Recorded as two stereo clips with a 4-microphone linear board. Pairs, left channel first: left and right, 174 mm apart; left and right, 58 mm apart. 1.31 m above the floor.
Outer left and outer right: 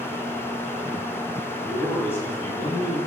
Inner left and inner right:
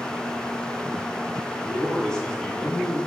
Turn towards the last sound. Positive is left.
turn(degrees=30)  # may be behind; listen again after turning